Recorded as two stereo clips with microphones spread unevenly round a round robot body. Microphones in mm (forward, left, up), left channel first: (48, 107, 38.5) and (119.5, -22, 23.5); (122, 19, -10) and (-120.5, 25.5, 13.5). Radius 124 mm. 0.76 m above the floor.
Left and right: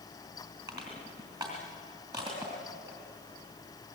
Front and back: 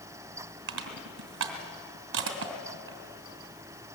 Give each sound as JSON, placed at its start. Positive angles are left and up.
{"t": 0.7, "sound": "crushing", "azimuth_deg": -140, "distance_m": 2.0}